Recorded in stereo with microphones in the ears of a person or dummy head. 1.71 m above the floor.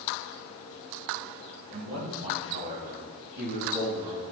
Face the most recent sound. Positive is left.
turn(degrees=-65)  # may be behind; listen again after turning